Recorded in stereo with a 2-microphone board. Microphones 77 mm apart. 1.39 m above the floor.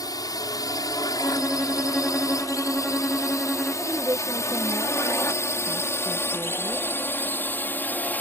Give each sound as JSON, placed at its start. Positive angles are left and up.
{"t": 0.0, "sound": "a drone", "side_deg": 60}
{"t": 1.2, "sound": "a violin", "side_deg": 15}
{"t": 3.9, "sound": "a woman speaking", "side_deg": -50}